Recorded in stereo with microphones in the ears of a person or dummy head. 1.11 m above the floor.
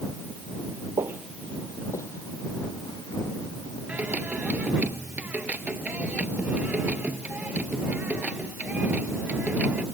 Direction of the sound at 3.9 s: 10° right (ahead or behind).